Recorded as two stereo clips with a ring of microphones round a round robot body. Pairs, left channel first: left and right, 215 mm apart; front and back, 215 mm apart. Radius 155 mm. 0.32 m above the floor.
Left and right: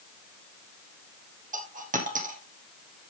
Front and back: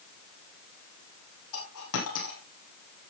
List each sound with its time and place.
1.5 s a dropped coin: 35° right, 3 m